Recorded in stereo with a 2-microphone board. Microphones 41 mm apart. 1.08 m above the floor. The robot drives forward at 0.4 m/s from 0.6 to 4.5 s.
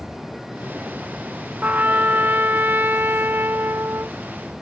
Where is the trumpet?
50° right (ahead or behind); by 4.2 s 70° right (ahead or behind).